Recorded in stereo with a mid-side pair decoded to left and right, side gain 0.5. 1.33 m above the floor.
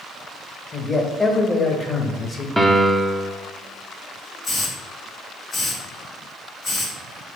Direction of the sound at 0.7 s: 20° left.